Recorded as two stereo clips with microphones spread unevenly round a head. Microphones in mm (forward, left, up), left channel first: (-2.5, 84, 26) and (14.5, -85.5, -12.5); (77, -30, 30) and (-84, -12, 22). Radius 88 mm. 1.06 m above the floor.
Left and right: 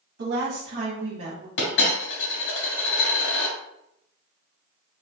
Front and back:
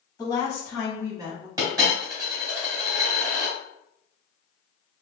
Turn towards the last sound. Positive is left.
turn(degrees=100)